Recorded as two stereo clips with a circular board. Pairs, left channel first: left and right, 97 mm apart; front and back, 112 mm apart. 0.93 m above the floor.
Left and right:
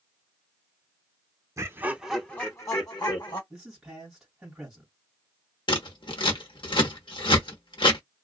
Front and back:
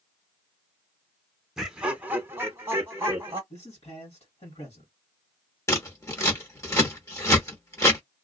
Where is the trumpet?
I don't hear a trumpet.